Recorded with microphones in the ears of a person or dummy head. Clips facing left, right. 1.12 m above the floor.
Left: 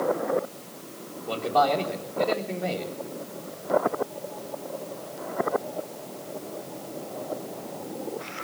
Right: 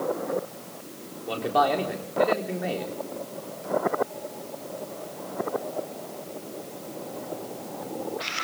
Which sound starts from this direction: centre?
A man speaking, at 1.3 s.